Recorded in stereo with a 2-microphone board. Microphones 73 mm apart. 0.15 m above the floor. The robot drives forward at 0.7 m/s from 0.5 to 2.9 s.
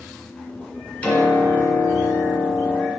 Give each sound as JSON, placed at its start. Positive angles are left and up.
{"t": 1.0, "sound": "a piano", "side_deg": 20, "distance_m": 1.8}